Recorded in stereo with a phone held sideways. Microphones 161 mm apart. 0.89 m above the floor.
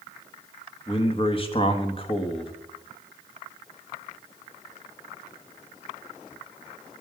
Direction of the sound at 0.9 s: 35° left (ahead or behind).